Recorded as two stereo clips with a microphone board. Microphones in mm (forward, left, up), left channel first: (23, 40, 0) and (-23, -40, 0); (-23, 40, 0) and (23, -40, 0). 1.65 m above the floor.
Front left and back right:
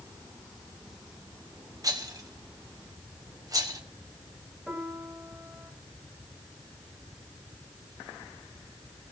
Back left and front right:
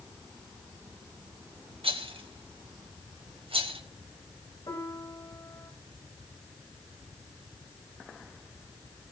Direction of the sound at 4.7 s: 155° left.